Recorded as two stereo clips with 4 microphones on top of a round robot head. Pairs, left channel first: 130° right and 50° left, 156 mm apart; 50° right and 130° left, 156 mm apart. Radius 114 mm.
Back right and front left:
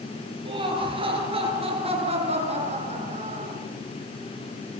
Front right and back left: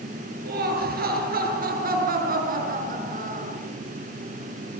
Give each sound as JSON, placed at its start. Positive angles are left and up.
{"t": 0.5, "sound": "laughter", "azimuth_deg": 110, "distance_m": 8.5}